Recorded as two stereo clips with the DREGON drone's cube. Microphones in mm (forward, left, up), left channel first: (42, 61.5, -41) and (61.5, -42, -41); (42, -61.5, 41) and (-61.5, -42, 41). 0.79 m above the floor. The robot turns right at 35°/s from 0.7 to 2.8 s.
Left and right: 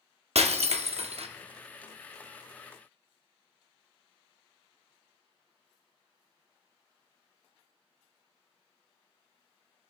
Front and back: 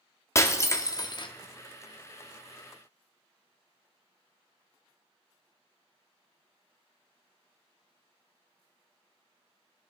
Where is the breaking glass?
75° right, 0.7 m; by 1.3 s 55° right, 0.7 m.